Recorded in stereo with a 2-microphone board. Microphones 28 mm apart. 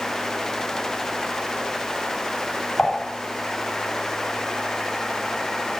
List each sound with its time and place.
2.8 s dishes clattering: 65° left (ahead or behind), 2.5 m